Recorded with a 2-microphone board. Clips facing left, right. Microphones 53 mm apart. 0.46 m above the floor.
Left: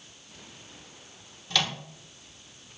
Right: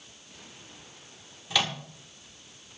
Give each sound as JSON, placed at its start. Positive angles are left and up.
{"t": 1.5, "sound": "a microwave", "side_deg": -10, "distance_m": 1.1}